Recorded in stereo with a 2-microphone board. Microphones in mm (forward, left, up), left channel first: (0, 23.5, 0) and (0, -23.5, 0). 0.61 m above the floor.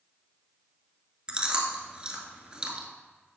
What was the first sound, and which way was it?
Chewing, 25° right (ahead or behind).